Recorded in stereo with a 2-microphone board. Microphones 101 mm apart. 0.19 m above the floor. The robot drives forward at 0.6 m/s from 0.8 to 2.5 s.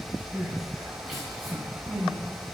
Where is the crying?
Centre (ahead or behind), 2.0 m.